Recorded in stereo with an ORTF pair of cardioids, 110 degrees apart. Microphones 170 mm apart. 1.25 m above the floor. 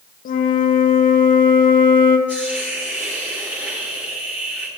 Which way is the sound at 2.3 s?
10° right.